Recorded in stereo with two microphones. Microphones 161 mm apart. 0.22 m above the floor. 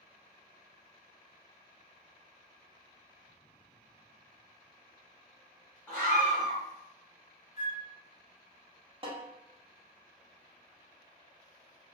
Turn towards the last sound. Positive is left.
turn(degrees=-35)  # may be behind; listen again after turning